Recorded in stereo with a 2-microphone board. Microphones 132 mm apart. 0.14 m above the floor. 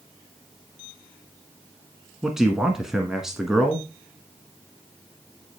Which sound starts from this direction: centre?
A man speaking, at 2.2 s.